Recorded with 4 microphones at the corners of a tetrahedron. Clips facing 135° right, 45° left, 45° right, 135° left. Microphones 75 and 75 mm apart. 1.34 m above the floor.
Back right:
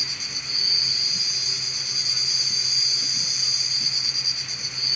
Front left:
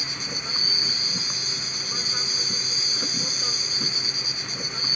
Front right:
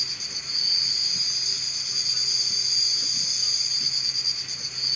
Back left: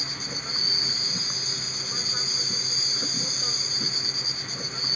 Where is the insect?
90° left.